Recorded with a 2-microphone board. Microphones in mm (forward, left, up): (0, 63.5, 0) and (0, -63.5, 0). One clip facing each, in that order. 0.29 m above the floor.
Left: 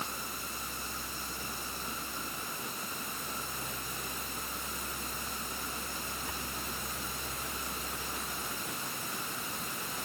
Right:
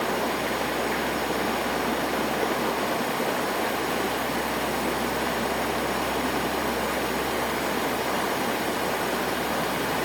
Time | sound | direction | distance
0.0 | running water | 85° right | ?